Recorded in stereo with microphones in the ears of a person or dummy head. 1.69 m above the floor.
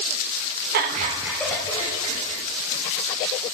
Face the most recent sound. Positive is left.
turn(degrees=50)  # may be behind; listen again after turning